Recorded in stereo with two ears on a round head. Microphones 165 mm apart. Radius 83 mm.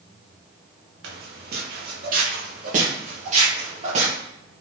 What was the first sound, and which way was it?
Footsteps, 65° right (ahead or behind).